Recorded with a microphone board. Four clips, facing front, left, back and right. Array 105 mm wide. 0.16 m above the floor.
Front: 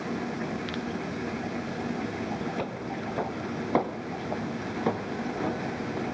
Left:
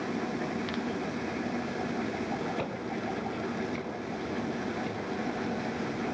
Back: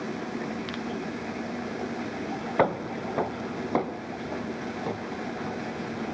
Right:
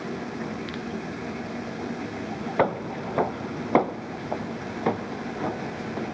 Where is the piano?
No piano in this recording.